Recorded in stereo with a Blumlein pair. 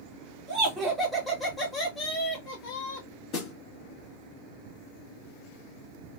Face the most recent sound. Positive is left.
turn(degrees=35)